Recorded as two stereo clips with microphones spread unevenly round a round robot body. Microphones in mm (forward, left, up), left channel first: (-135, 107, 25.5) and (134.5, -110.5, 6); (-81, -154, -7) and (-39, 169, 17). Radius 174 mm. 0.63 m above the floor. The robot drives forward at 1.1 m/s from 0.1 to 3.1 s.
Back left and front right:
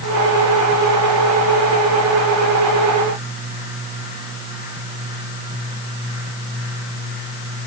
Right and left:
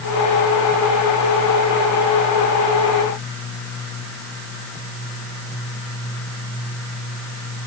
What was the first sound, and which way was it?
Only background noise.